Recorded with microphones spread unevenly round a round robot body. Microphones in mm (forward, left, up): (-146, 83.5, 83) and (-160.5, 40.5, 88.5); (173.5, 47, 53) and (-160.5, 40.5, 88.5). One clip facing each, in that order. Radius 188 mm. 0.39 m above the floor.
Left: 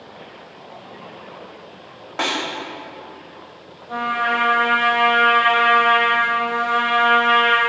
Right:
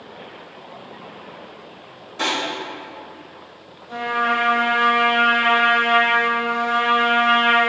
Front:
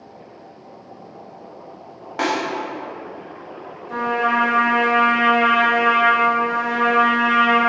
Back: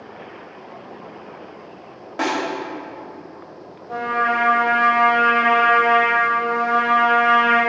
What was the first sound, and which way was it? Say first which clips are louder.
A snare drum: even, front 1 dB; 75° left.